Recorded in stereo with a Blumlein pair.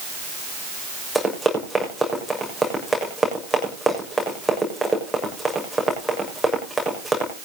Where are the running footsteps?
Straight ahead, 6.5 m.